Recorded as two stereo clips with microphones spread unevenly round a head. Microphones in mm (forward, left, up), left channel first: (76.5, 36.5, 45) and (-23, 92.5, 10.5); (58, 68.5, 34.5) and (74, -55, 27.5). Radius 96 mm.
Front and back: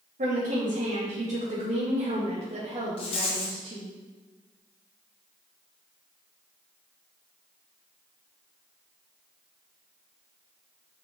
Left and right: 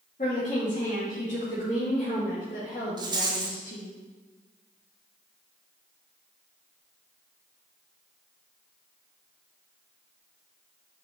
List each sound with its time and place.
0.2 s a woman speaking: 145° left, 3 m; by 4.0 s 105° left, 2.5 m
3.0 s a rattle: 30° right, 1.4 m